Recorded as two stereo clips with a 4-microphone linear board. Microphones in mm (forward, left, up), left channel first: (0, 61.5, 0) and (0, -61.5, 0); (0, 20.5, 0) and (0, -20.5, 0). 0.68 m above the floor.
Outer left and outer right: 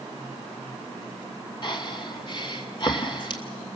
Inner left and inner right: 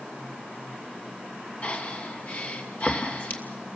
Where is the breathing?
40° left (ahead or behind), 2.5 m.